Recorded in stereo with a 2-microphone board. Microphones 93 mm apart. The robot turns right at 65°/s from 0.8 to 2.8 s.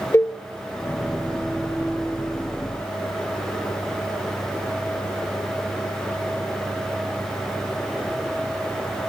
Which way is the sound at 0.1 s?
30° left (ahead or behind).